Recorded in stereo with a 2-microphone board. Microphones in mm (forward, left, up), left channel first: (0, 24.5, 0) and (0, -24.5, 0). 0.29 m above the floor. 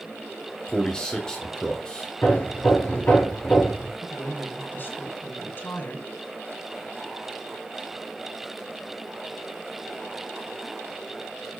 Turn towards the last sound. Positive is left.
turn(degrees=45)  # may be behind; listen again after turning